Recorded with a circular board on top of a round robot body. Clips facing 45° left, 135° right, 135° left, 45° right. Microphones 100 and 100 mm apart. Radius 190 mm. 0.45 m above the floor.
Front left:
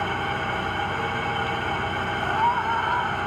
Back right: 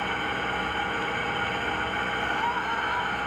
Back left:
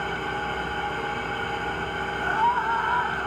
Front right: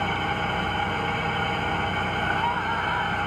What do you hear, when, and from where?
0.0 s an engine running: 20° right, 2.5 m
2.2 s a scream: 80° left, 1.9 m